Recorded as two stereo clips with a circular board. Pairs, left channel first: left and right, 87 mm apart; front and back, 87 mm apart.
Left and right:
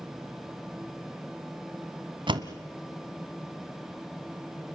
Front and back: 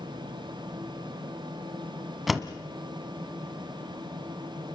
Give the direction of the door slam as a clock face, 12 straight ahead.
3 o'clock.